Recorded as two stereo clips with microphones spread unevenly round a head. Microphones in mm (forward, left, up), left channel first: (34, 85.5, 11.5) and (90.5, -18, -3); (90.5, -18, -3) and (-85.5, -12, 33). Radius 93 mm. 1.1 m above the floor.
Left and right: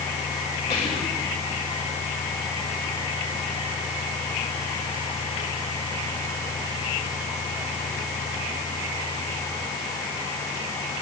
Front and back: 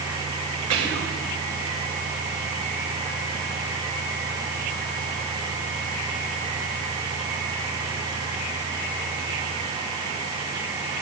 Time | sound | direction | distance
0.7 | whispering | 175° left | 6 m